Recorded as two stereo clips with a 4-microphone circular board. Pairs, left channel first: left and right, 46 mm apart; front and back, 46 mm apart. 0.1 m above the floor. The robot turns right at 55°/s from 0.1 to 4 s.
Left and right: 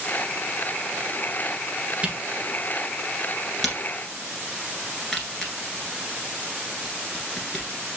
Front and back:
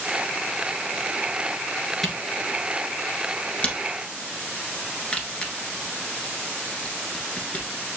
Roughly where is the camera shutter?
Right.